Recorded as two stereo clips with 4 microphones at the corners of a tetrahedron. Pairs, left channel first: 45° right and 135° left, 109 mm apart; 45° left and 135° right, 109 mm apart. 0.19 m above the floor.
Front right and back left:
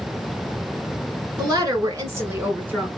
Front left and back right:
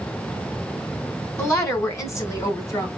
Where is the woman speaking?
100° left, 2.5 m; by 2.9 s 70° left, 1.9 m.